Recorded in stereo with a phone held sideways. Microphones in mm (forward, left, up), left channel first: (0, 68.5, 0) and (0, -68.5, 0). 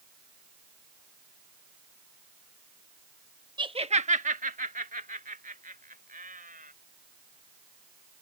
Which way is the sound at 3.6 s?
35° right (ahead or behind).